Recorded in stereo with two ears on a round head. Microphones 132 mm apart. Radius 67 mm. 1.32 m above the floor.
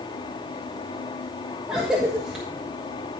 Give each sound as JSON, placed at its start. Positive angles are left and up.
{"t": 1.7, "sound": "a cough", "side_deg": -5, "distance_m": 1.2}